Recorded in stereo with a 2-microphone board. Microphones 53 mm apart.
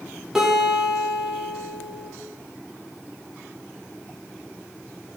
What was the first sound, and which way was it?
A guitar, 5° right (ahead or behind).